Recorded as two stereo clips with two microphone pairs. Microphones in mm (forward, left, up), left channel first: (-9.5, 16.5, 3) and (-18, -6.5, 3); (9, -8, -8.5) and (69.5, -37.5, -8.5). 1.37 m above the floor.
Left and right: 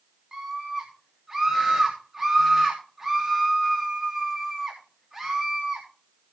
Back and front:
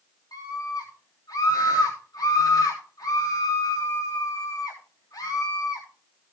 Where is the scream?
165° left, 3 m.